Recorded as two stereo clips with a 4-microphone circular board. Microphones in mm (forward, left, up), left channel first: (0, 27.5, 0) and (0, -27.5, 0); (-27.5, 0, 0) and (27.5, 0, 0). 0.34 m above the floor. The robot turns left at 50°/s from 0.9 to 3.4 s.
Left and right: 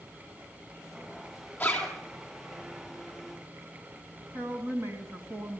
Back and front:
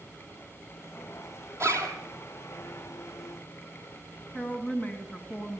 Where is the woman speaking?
120° right, 3 m.